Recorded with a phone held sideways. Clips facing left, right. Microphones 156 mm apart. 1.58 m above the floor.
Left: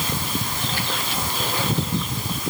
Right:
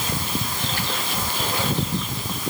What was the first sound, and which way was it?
Only background noise.